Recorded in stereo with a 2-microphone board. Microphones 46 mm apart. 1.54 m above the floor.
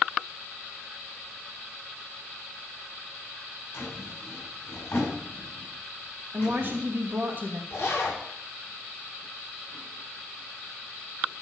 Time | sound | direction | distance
3.7 | a drawer | 50° left (ahead or behind) | 6.5 m
6.3 | a woman speaking | 45° right (ahead or behind) | 2.5 m
7.7 | a zipper | 50° left (ahead or behind) | 6 m